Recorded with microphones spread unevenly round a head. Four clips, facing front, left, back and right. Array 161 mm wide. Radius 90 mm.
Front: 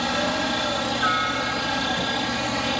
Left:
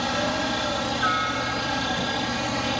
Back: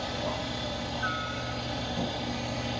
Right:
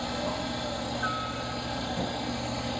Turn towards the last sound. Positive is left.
turn(degrees=35)